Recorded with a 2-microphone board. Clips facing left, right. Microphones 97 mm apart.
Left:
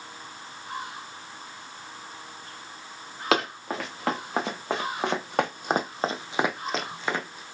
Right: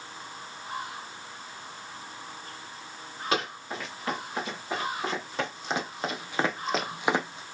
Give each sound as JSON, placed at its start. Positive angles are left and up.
{"t": 3.3, "sound": "running footsteps", "side_deg": 80, "distance_m": 3.0}